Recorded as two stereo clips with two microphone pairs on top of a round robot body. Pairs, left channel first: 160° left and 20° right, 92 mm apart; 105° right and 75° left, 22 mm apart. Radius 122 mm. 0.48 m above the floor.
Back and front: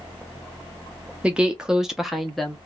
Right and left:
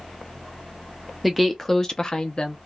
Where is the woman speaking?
5° left, 0.8 m; by 2.5 s 90° right, 0.9 m.